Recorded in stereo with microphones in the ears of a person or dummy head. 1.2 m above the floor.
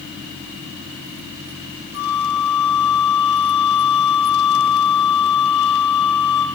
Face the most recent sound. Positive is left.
turn(degrees=70)  # may be behind; listen again after turning